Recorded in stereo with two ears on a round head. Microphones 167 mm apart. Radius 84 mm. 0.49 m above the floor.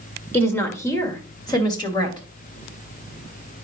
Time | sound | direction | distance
0.3 | a woman speaking | 10° left (ahead or behind) | 1.8 m